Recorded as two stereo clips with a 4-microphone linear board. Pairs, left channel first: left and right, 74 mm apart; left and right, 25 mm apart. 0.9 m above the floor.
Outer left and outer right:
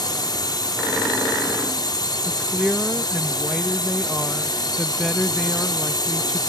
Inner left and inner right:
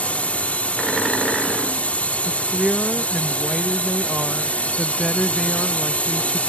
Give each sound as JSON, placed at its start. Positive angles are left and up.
{"t": 0.0, "sound": "a drone", "side_deg": 70}
{"t": 2.2, "sound": "a woman speaking", "side_deg": 0}